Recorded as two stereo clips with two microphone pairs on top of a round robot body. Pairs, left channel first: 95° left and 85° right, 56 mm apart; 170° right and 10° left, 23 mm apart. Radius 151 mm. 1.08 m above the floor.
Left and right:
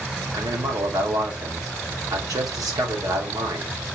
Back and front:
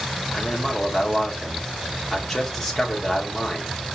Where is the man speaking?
90° right, 3.5 m.